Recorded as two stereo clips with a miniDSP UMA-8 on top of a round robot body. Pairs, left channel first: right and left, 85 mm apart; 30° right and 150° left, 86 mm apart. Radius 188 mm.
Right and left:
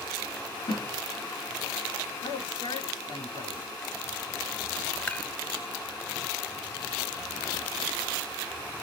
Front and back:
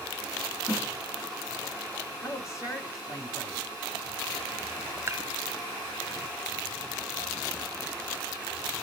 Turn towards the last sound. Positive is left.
turn(degrees=-155)